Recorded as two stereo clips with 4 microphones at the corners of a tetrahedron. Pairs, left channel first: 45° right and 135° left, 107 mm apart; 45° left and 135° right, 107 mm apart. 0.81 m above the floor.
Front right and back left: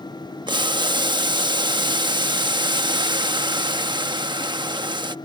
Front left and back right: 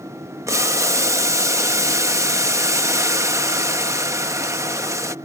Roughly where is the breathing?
I don't hear breathing.